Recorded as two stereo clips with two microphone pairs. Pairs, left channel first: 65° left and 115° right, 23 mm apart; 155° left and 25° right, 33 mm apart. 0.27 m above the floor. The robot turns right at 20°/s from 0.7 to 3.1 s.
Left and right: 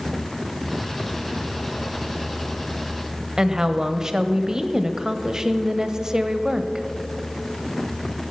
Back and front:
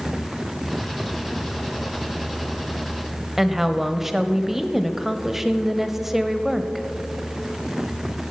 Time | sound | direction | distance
3.4 | a woman speaking | 85° right | 1.0 m